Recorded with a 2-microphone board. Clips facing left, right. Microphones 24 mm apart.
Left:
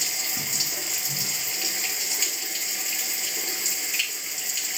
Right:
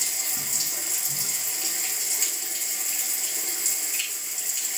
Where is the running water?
30° left (ahead or behind), 1.1 m.